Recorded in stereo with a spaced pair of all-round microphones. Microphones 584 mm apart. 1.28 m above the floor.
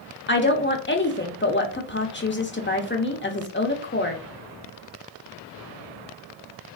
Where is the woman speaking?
20° left (ahead or behind), 0.5 m.